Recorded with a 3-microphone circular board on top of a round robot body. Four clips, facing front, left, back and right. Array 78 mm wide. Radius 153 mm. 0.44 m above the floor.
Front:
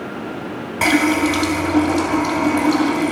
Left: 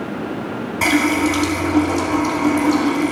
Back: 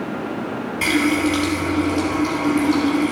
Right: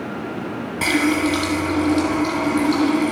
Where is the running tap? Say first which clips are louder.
Left 2 dB, front 3 dB; 15° left, 3 m.